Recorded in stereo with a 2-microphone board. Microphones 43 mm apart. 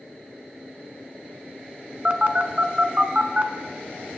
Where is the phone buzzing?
40° right (ahead or behind), 0.6 m.